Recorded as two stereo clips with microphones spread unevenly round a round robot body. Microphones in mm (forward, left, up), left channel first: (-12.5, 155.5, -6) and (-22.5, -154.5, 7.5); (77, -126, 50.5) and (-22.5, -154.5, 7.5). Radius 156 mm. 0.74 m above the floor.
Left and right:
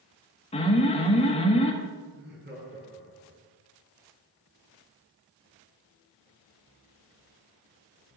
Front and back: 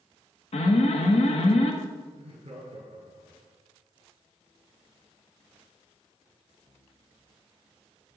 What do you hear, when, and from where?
0.5 s an alarm: 30° left, 1.8 m
2.1 s laughter: 150° right, 6 m